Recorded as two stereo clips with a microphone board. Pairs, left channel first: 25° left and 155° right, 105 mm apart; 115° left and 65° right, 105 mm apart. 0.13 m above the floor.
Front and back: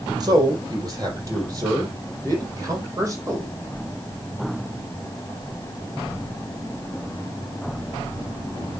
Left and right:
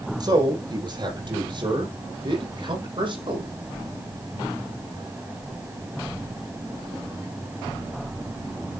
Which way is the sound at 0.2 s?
110° right.